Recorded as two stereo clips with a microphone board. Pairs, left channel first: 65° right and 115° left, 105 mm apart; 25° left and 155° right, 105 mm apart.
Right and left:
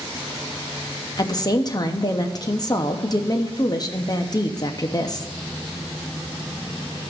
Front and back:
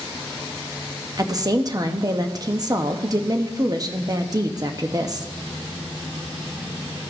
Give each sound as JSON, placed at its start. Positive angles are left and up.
{"t": 1.2, "sound": "a woman speaking", "azimuth_deg": -110, "distance_m": 0.7}